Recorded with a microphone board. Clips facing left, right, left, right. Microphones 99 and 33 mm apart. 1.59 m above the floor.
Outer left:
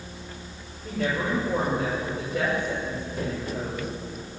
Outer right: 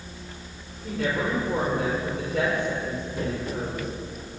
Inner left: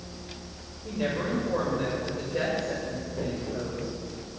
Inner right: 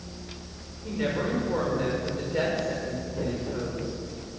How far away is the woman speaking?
About 7 m.